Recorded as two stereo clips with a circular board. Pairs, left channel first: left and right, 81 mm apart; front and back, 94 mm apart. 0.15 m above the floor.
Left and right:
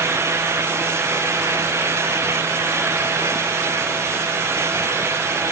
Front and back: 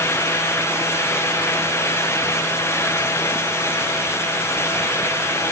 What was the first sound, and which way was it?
Only background noise.